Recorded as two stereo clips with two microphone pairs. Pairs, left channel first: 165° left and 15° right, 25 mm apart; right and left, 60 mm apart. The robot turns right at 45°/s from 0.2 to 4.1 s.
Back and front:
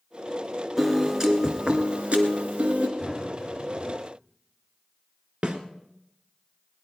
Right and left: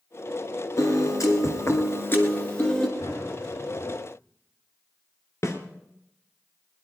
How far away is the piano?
About 1.8 m.